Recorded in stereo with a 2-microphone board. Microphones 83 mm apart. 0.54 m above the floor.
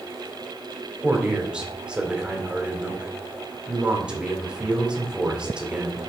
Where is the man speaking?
10° right (ahead or behind), 1.7 m.